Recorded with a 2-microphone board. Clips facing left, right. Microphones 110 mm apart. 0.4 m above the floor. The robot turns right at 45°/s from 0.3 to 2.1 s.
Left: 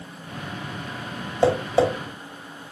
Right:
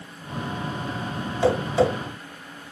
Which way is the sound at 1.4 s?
40° left (ahead or behind).